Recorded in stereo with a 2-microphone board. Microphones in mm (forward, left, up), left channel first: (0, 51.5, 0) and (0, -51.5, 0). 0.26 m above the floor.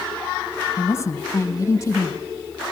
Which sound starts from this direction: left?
A woman speaking, at 0.8 s.